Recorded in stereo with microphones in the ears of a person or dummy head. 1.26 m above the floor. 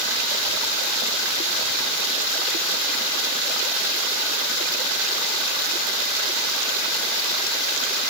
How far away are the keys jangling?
No keys jangling in this recording.